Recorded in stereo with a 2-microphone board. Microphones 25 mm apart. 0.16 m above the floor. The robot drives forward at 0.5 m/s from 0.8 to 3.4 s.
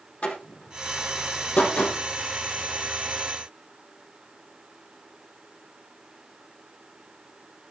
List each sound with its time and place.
0.2 s a door slam: 70° left (ahead or behind), 5 m; by 2.0 s 75° left (ahead or behind), 5 m